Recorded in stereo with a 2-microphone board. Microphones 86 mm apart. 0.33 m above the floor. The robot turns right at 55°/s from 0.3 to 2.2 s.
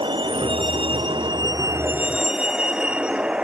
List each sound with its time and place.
0.0 s a vehicle: 70° right (ahead or behind); by 3.4 s 15° right (ahead or behind)